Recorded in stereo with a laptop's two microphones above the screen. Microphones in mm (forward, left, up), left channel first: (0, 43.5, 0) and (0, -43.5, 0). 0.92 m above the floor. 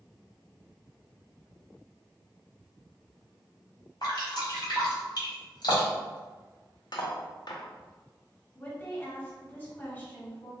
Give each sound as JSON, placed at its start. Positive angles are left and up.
{"t": 4.0, "sound": "dripping", "side_deg": 55, "distance_m": 1.3}
{"t": 6.9, "sound": "cutlery clinking", "side_deg": 60, "distance_m": 0.6}
{"t": 8.6, "sound": "a woman speaking", "side_deg": 25, "distance_m": 1.8}